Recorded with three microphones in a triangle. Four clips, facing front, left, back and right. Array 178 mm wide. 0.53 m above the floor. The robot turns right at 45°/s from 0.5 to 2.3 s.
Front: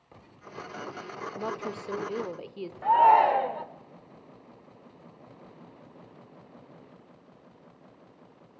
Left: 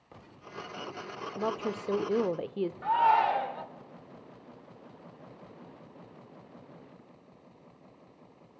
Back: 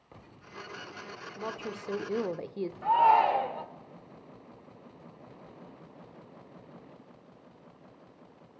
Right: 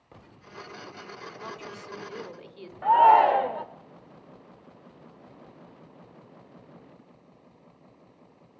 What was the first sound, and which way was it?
A woman speaking, 65° left.